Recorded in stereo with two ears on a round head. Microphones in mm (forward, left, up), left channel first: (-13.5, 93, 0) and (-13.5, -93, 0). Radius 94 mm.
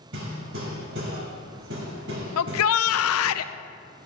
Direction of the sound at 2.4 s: 75° left (ahead or behind).